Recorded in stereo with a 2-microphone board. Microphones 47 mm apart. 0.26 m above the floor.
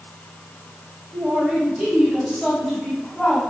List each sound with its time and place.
1.1 s a man speaking: 30° right (ahead or behind), 1.8 m; by 3.4 s 15° left (ahead or behind), 2.5 m